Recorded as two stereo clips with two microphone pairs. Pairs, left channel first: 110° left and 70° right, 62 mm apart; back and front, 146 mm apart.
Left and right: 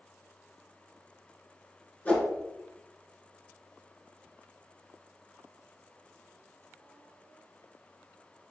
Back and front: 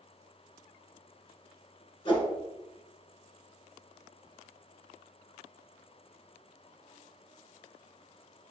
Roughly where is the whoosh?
Behind left.